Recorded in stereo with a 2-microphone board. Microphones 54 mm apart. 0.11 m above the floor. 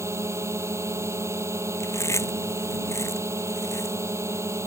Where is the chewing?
60° left (ahead or behind).